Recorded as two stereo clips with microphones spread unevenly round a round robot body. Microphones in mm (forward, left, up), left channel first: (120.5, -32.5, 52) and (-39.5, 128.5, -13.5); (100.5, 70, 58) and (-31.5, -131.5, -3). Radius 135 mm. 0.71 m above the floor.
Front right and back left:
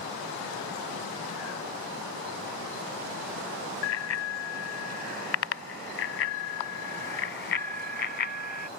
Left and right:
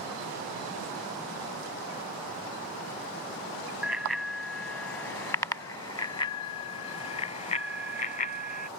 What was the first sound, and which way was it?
A bicycle bell, 35° right.